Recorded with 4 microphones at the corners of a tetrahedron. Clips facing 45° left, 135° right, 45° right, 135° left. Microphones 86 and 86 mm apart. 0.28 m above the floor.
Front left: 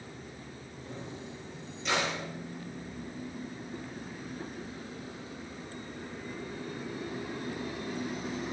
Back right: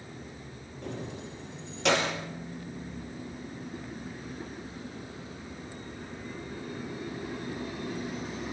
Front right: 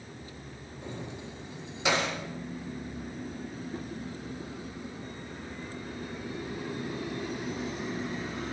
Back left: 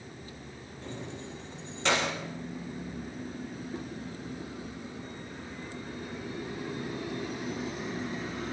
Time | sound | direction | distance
0.8 | keys jangling | 120° right | 4.5 m